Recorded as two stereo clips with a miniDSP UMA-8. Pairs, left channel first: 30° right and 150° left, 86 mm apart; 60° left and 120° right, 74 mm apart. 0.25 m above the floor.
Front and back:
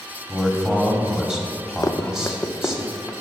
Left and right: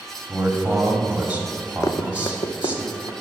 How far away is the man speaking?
About 1.3 m.